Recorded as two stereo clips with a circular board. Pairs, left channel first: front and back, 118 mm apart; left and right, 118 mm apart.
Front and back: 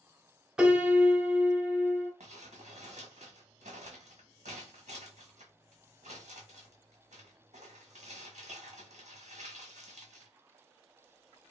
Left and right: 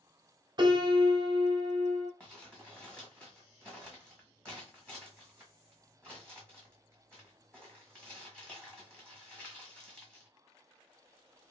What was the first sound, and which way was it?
A piano, 100° right.